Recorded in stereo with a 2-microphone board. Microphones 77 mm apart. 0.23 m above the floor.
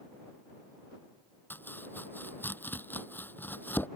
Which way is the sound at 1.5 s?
25° left (ahead or behind).